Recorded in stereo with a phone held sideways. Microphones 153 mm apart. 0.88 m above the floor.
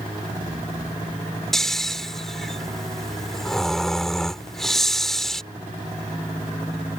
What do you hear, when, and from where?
1.5 s snoring: centre (ahead or behind)